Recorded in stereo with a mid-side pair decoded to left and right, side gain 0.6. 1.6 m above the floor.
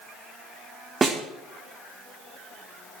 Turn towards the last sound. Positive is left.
turn(degrees=-20)